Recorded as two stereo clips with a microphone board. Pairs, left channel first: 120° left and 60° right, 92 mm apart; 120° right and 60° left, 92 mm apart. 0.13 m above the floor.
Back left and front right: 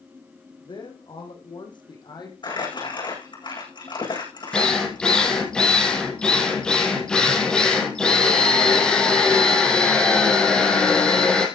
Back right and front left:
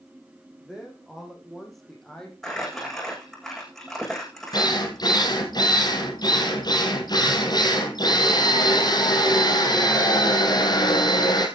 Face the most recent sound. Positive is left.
turn(degrees=-160)